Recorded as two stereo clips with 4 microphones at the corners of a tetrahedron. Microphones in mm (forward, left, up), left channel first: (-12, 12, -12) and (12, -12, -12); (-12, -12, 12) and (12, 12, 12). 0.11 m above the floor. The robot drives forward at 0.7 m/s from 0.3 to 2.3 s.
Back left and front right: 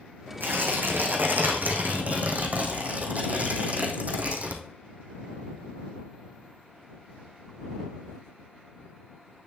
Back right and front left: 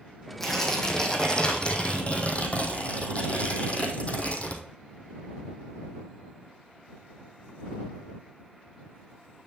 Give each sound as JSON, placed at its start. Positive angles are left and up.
{"t": 0.4, "sound": "tearing paper", "azimuth_deg": -55, "distance_m": 2.5}